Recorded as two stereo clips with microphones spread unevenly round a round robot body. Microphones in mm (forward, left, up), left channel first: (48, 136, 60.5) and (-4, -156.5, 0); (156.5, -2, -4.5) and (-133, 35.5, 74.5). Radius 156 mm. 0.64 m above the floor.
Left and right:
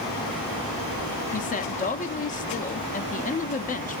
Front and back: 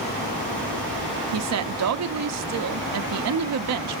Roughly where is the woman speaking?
Behind left.